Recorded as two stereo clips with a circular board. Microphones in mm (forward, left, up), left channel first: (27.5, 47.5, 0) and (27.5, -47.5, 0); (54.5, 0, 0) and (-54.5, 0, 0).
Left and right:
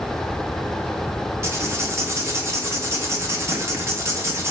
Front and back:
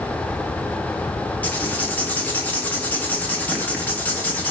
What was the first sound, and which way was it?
Writing, 65° right.